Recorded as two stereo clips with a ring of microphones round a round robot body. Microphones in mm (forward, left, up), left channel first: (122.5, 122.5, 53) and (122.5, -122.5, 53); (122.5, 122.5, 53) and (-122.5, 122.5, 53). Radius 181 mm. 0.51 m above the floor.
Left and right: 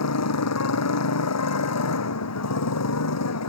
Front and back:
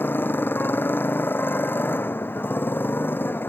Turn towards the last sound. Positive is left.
turn(degrees=80)